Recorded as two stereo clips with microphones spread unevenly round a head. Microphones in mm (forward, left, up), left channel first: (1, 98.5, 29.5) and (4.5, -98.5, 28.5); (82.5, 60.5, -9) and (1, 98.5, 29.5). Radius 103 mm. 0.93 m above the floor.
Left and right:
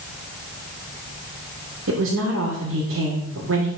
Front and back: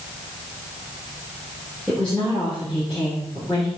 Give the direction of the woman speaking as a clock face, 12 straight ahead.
4 o'clock.